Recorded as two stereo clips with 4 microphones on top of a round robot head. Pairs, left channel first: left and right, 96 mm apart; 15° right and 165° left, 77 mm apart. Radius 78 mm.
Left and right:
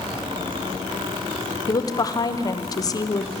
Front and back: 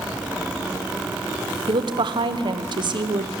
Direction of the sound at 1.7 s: 145° left.